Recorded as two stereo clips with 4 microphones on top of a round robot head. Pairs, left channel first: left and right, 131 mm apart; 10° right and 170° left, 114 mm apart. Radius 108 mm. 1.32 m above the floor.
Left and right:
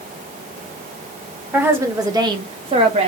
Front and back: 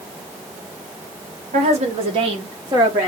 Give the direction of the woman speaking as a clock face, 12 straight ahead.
6 o'clock.